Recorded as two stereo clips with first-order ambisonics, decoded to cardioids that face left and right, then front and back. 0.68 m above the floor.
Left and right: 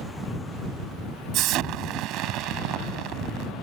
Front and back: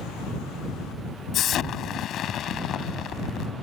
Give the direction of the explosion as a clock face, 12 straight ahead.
2 o'clock.